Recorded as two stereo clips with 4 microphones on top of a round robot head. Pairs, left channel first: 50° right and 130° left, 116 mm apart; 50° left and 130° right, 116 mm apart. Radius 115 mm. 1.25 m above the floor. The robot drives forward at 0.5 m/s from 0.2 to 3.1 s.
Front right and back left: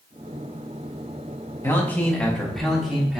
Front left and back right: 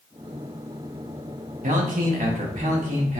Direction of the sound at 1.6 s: 120° right.